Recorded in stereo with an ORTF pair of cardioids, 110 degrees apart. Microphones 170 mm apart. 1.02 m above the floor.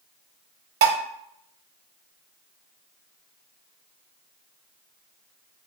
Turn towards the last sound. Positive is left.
turn(degrees=-65)